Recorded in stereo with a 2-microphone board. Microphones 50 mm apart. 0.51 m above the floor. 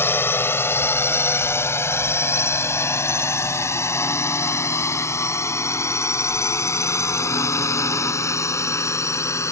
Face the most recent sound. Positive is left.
turn(degrees=70)  # may be behind; listen again after turning